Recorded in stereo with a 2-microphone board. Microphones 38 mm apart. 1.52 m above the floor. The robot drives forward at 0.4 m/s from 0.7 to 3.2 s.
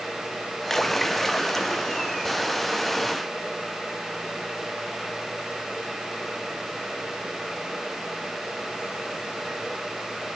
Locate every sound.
0.7 s a splash: 10° left (ahead or behind), 0.5 m; by 2.3 s 5° left (ahead or behind), 1.1 m